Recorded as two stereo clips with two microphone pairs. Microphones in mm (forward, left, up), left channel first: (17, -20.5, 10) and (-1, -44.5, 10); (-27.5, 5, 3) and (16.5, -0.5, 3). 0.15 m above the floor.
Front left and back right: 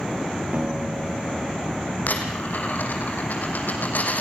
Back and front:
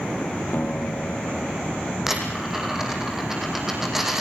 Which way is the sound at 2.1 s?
75° left.